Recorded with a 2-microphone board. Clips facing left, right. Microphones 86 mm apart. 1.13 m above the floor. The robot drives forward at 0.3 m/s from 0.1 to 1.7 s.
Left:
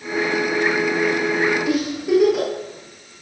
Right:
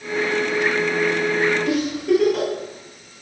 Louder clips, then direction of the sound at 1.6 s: Right 1 dB; 5° left (ahead or behind).